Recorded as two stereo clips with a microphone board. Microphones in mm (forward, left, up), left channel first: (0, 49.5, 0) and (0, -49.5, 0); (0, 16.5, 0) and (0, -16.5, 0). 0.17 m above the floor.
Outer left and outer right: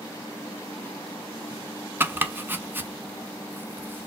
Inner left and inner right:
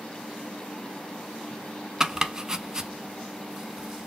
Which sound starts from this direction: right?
Chopping, at 2.0 s.